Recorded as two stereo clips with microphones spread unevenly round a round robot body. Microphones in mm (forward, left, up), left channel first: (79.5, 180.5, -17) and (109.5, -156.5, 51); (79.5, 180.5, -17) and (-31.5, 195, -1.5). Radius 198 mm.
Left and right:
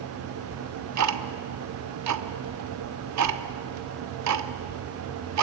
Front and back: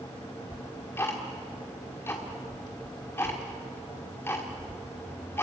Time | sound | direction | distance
0.5 | ticking | 60° right | 1.3 m